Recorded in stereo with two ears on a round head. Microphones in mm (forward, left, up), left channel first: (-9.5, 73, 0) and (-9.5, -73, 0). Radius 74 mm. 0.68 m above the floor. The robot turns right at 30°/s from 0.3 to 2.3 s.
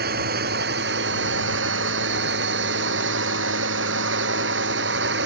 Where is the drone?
70° right (ahead or behind); by 5.3 s 80° right.